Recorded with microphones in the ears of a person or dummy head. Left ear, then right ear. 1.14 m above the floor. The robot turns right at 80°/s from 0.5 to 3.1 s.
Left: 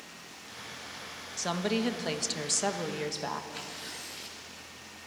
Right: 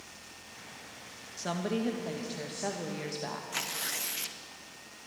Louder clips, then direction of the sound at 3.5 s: Right 5 dB; 25° right (ahead or behind).